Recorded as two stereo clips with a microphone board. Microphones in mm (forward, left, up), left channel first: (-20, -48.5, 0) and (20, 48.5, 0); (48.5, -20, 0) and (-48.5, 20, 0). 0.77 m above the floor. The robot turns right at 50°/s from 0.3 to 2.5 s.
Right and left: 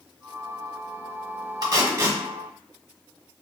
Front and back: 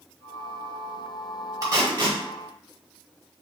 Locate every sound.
1.6 s tape being pulled: 105° left, 1.0 m; by 2.2 s 135° left, 1.0 m